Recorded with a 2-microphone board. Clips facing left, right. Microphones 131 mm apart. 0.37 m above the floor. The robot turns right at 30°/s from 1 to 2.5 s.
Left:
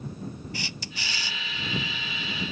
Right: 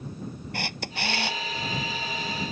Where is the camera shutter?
60° right (ahead or behind); by 1.4 s 70° right (ahead or behind).